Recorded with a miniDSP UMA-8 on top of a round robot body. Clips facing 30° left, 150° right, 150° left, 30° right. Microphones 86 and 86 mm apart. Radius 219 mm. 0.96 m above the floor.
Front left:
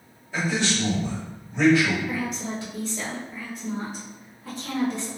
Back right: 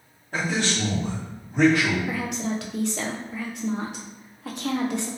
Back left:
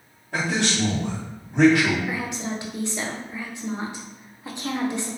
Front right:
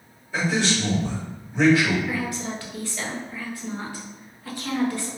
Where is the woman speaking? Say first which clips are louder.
Back right 2 dB, even; 140° right, 0.6 m.